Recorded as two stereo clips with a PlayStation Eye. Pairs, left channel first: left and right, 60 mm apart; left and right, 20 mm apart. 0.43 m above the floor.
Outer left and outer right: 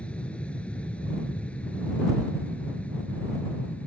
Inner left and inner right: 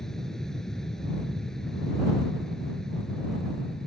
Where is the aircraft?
20° left (ahead or behind); by 3.9 s 25° left (ahead or behind).